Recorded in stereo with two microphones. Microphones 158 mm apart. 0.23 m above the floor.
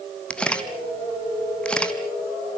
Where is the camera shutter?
5° left (ahead or behind), 1.7 m.